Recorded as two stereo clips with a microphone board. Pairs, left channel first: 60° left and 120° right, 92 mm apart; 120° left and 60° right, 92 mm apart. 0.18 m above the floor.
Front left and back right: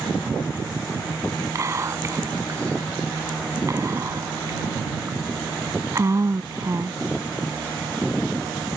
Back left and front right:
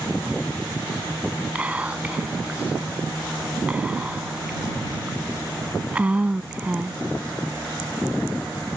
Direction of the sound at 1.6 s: 125° right.